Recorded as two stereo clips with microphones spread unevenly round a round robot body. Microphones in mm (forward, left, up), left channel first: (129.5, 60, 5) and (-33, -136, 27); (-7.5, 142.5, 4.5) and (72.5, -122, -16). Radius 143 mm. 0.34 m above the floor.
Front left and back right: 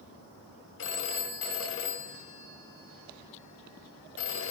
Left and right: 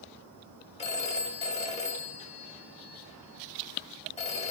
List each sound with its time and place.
0.8 s a phone ringing: 40° left, 1.5 m